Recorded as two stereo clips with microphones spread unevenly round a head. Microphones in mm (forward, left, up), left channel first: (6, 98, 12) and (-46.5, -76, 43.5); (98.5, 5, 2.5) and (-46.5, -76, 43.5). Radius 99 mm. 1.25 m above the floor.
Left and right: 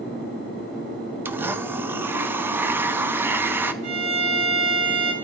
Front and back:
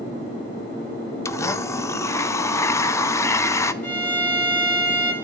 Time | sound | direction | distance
1.2 | a blender | 25° right | 0.5 m
3.8 | a violin | 55° right | 3.5 m